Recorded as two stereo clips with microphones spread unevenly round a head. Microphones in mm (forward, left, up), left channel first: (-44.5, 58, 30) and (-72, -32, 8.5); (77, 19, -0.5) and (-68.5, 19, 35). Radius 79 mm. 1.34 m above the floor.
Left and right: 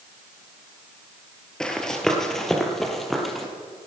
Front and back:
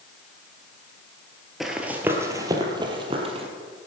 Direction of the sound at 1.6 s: 120° left.